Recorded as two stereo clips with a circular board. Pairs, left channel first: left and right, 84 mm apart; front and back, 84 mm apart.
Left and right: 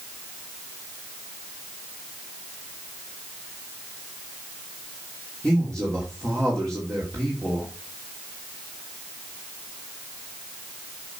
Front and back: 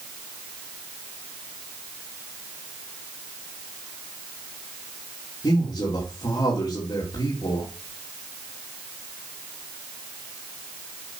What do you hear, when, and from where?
5.4 s a man speaking: 10° left, 2.5 m